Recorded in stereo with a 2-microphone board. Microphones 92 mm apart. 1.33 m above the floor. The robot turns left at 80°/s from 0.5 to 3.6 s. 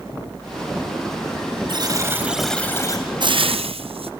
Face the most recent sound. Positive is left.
turn(degrees=-85)